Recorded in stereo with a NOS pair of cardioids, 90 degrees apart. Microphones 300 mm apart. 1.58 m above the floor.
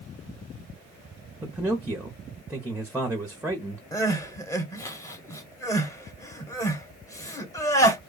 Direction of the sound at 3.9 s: 10° left.